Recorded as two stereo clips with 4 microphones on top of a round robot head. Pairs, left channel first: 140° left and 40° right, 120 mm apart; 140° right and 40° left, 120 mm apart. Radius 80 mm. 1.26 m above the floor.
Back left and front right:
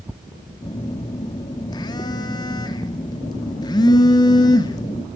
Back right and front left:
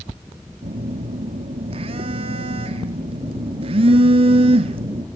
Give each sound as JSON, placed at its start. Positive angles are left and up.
{"t": 0.6, "sound": "a phone buzzing", "azimuth_deg": 85, "distance_m": 1.6}